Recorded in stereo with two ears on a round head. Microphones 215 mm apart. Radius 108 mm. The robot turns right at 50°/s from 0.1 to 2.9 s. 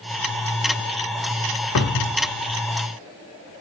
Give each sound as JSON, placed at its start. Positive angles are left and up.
{"t": 1.8, "sound": "a cupboard door", "side_deg": 65, "distance_m": 0.8}